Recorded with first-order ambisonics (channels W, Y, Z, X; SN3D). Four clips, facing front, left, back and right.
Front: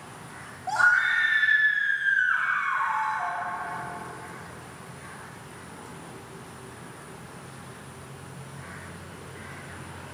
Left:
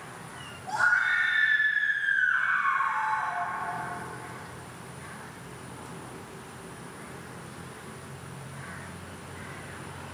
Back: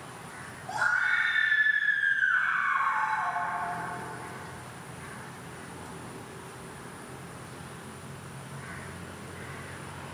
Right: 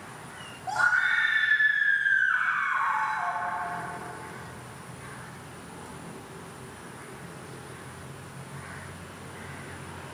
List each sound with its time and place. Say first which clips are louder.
0.7 s a scream: even, front 5 dB; 25° right, 3.5 m; by 3.4 s 50° right, 3 m